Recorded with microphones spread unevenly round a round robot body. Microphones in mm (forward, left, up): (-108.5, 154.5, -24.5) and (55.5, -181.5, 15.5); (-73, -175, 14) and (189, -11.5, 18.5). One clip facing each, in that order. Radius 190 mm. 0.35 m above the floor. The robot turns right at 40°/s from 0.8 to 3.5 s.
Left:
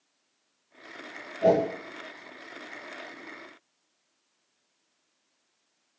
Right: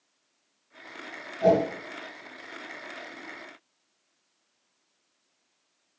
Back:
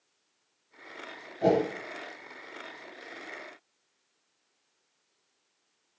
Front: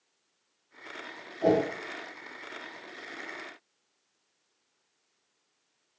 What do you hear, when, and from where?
1.4 s a whoosh: 145° right, 1.3 m; by 1.6 s 135° right, 1.3 m